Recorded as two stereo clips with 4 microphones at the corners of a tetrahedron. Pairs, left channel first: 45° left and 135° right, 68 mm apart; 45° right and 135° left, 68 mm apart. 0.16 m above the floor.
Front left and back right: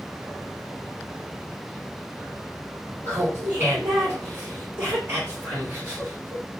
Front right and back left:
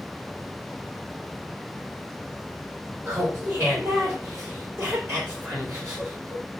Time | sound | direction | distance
3.0 | laughter | straight behind | 2.5 m